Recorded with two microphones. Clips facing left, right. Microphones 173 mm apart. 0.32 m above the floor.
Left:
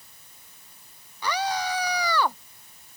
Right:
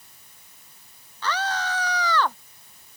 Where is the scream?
10° left (ahead or behind).